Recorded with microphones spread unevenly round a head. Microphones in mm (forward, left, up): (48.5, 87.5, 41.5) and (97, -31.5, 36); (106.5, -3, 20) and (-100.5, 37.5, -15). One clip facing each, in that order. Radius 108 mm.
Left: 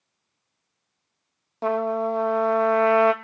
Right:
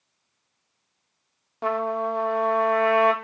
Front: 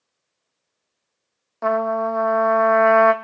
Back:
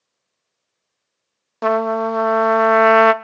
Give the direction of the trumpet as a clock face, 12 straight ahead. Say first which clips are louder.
Left 2 dB, back 3 dB; 7 o'clock.